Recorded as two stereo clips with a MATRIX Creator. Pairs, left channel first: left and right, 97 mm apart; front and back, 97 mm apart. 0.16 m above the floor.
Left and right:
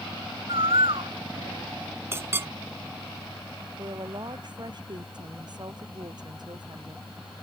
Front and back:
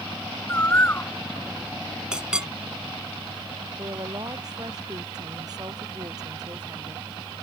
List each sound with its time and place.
0.5 s a bird: 65° right
2.1 s a clink: 110° right
3.8 s a woman speaking: 130° right